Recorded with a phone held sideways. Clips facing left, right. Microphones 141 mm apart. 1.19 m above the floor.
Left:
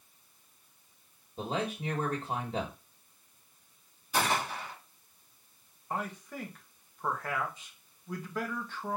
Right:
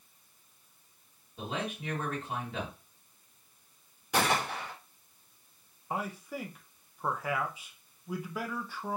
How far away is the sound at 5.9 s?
About 1.0 m.